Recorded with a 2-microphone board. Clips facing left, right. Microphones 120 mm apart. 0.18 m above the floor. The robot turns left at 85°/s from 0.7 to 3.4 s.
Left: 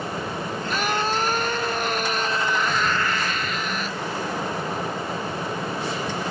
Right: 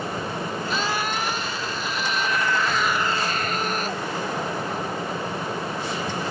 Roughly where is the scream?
Behind.